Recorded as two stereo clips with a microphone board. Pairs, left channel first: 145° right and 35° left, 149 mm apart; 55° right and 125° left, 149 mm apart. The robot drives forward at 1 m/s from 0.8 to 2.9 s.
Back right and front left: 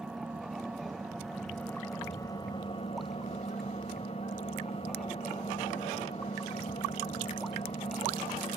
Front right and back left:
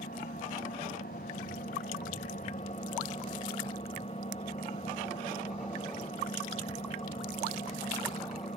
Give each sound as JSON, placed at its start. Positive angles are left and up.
{"t": 0.0, "sound": "an engine running", "azimuth_deg": -50, "distance_m": 2.5}